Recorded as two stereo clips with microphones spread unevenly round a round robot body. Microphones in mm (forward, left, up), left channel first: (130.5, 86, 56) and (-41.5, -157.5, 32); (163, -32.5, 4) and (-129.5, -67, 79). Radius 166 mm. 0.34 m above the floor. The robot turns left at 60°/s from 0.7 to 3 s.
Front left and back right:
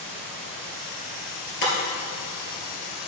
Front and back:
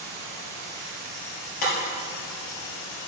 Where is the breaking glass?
5° left, 2.5 m; by 1.7 s 5° right, 2.5 m.